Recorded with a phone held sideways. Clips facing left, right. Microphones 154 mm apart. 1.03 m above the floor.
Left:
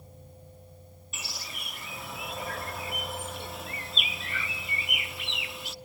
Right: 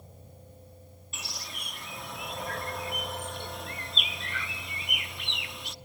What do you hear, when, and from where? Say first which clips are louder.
1.1 s a bird: even; centre (ahead or behind), 0.7 m